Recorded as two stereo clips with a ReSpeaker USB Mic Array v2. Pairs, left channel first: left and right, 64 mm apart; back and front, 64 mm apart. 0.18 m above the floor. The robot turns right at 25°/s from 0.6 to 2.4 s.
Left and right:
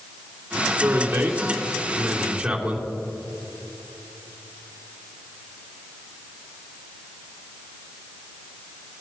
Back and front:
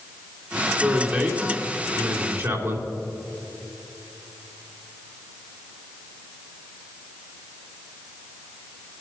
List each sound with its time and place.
0.8 s a man speaking: 65° right, 2.5 m; by 2.9 s 25° right, 2.5 m